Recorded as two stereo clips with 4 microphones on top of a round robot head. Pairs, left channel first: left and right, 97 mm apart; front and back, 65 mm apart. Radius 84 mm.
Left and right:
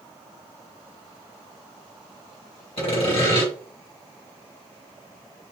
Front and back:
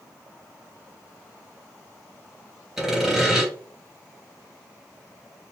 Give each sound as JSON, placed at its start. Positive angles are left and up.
{"t": 2.8, "sound": "sawing", "azimuth_deg": 100, "distance_m": 3.0}